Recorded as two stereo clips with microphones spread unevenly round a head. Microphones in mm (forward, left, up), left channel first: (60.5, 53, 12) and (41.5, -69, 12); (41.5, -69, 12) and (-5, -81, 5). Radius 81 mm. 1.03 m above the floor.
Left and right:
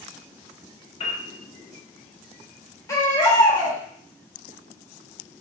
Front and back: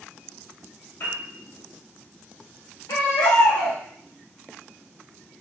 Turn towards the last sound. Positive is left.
turn(degrees=15)